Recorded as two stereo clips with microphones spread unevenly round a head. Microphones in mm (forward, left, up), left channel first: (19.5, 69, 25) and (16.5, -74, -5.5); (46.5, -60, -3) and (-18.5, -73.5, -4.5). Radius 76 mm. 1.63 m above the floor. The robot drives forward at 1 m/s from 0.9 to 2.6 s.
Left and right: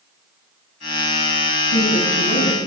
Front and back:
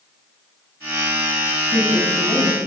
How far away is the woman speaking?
About 8.5 m.